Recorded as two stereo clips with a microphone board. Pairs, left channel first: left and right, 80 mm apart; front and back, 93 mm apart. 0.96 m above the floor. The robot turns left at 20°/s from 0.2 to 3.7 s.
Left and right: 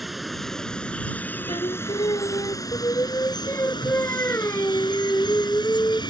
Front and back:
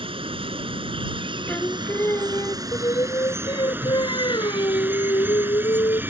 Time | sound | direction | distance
0.0 | running water | straight behind | ?
1.5 | singing | 75° left | ?